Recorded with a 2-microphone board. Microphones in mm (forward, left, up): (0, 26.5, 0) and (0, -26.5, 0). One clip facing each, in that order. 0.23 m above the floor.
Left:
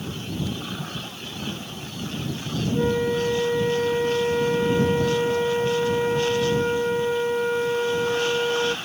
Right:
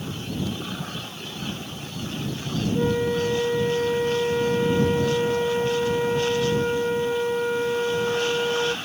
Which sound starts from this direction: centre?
A flute, at 2.7 s.